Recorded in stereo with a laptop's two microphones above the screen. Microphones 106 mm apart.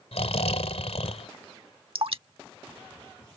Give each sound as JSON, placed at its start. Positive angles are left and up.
{"t": 0.1, "sound": "snoring", "side_deg": 75}
{"t": 1.9, "sound": "dripping", "side_deg": -60}